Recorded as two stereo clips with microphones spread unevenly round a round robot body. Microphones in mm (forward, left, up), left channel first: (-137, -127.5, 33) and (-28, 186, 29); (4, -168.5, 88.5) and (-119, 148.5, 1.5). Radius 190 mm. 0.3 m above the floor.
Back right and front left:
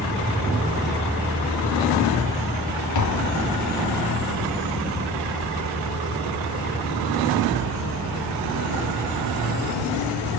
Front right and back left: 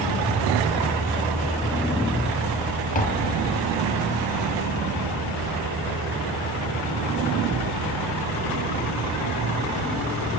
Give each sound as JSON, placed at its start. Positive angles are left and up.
{"t": 3.0, "sound": "tapping", "azimuth_deg": -140, "distance_m": 1.5}